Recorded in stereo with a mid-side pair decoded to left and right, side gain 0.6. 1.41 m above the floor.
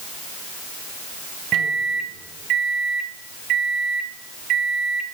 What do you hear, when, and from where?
1.5 s a microwave: 55° right, 1.1 m